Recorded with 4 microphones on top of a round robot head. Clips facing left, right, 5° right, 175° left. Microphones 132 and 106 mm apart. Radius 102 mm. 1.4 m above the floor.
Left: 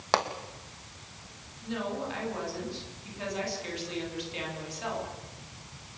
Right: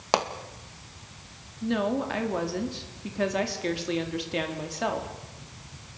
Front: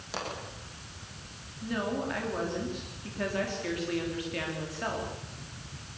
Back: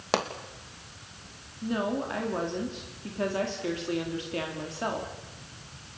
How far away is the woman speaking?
About 3.5 m.